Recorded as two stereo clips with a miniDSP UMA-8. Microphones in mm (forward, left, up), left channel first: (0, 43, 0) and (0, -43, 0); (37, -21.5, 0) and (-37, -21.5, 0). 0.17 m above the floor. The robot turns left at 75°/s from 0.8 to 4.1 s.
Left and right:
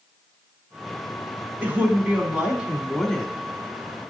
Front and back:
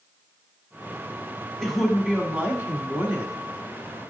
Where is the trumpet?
No trumpet in this recording.